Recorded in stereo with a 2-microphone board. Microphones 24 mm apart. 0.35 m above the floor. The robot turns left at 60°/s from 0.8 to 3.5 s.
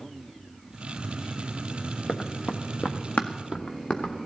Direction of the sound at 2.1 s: 75° left (ahead or behind).